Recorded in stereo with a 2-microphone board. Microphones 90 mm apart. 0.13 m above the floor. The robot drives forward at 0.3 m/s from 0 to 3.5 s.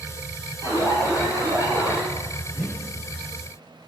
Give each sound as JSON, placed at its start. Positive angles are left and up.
{"t": 0.6, "sound": "an alarm", "side_deg": -40, "distance_m": 5.0}
{"t": 2.5, "sound": "a whoosh", "side_deg": -5, "distance_m": 1.1}